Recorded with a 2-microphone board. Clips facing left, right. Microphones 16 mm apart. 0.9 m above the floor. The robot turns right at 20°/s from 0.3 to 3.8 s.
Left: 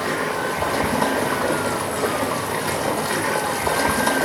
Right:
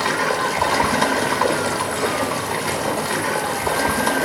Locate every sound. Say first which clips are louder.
0.0 s running water: right 3 dB; 80° right, 3.5 m; by 4.2 s 10° right, 3.5 m